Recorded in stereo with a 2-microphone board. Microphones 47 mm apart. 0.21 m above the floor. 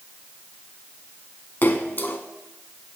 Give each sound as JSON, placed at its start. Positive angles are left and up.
{"t": 1.6, "sound": "a splash", "side_deg": 50, "distance_m": 1.0}